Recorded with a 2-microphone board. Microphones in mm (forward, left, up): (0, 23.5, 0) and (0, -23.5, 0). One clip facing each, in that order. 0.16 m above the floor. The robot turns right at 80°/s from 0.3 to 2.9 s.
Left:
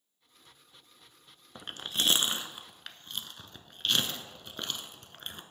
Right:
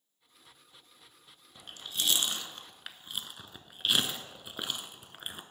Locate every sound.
1.6 s chewing: 60° left (ahead or behind), 0.6 m; by 5.4 s 10° right (ahead or behind), 0.6 m